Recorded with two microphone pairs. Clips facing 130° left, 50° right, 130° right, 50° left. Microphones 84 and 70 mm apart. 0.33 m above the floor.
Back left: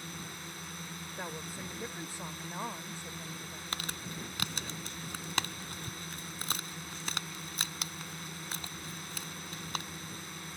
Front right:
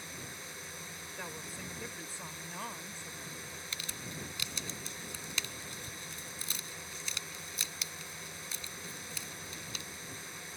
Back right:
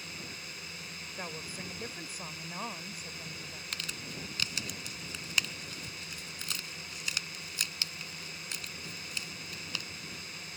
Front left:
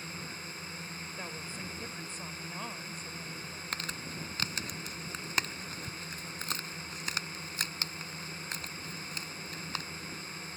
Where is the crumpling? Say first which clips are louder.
Back left 5 dB, front left 3 dB; 100° left.